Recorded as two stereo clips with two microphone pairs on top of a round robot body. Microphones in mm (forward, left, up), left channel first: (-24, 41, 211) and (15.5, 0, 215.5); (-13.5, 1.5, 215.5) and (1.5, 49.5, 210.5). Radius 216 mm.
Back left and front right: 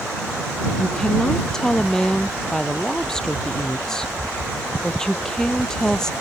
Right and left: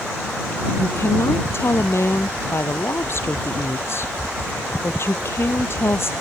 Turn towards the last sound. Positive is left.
turn(degrees=-145)